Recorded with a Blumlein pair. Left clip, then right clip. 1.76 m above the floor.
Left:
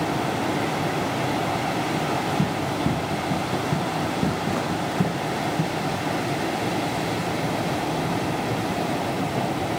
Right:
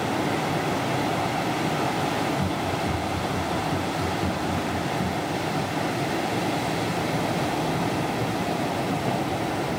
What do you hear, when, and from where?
2.4 s running footsteps: 25° left, 6 m